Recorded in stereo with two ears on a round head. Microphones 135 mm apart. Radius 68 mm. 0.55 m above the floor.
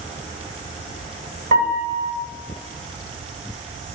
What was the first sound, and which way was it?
A piano, 60° right (ahead or behind).